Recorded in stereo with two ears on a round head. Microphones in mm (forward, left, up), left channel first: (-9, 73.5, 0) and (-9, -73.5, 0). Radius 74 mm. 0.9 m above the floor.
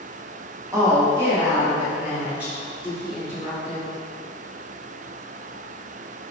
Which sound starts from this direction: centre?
A woman speaking, at 0.7 s.